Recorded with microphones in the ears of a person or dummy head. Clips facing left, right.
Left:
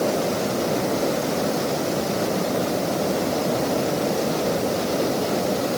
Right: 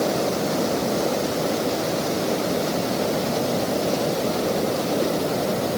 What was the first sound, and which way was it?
Only background noise.